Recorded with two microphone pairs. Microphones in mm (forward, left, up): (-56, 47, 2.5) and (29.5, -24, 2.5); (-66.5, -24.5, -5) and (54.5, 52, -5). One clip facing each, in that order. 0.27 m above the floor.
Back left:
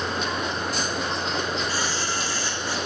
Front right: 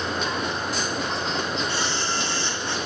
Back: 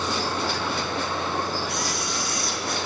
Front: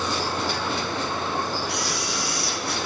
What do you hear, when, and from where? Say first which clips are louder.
1.7 s a camera shutter: front right 1 dB, front 1 dB; 105° right, 7 m